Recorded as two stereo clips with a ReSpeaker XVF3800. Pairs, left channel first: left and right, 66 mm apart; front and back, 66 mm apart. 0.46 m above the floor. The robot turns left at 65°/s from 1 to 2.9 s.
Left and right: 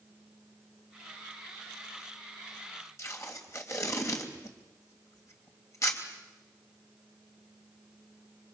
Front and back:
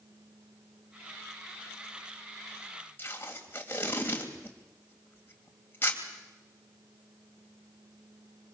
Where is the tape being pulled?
55° left, 3 m.